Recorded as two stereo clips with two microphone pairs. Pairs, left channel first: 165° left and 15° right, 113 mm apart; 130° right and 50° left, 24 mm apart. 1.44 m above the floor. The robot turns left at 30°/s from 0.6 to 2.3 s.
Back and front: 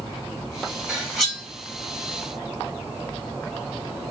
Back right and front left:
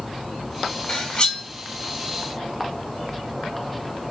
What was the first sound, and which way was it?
Cutlery clinking, 95° right.